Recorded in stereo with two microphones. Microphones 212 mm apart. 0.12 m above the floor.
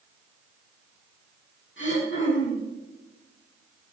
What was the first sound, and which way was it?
Throat clearing, 65° left (ahead or behind).